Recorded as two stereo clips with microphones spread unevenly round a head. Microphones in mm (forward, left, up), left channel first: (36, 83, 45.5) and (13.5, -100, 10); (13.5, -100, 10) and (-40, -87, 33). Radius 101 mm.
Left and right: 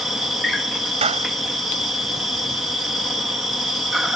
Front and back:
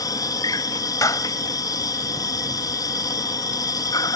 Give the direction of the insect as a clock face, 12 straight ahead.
12 o'clock.